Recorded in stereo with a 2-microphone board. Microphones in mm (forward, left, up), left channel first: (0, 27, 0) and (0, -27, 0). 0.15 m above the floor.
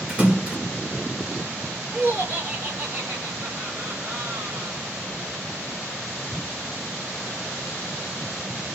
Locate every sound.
0.1 s a splash: 25° right (ahead or behind), 1.7 m
1.9 s laughter: 40° right (ahead or behind), 1.4 m